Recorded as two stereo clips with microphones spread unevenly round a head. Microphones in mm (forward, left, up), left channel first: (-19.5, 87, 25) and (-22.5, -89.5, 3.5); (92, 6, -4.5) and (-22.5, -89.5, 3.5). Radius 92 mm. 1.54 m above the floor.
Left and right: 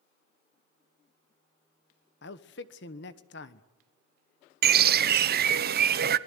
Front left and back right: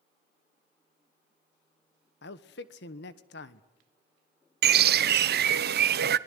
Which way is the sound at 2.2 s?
55° left.